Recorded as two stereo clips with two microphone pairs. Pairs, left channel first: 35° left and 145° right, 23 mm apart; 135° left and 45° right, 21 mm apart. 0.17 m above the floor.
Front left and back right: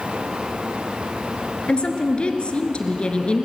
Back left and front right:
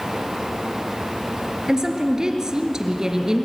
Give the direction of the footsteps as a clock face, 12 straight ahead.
I don't hear footsteps.